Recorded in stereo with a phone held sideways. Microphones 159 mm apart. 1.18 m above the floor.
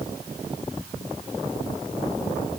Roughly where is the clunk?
No clunk in this recording.